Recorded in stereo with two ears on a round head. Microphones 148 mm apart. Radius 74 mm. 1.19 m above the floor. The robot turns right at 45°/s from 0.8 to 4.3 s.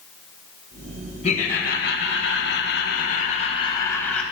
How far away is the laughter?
About 1.3 m.